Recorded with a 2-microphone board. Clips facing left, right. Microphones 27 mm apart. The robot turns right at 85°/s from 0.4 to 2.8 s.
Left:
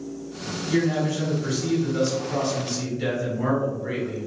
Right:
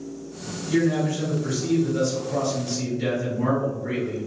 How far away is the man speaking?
About 1.2 m.